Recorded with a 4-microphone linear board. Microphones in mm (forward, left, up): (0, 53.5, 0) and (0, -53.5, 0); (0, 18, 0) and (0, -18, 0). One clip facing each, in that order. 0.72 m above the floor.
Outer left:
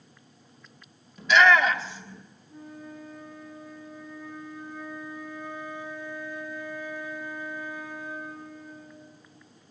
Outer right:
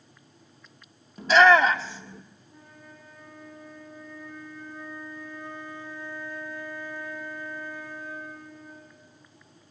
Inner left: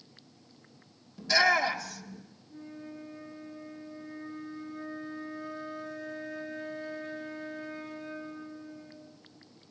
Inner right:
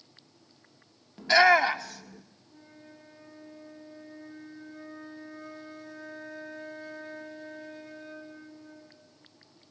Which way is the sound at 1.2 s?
40° right (ahead or behind).